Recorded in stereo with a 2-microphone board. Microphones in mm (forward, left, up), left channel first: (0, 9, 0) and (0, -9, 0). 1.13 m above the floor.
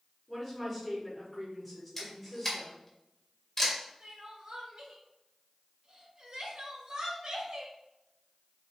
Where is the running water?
I don't hear running water.